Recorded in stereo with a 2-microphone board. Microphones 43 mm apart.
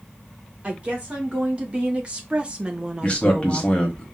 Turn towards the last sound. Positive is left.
turn(degrees=30)  # may be behind; listen again after turning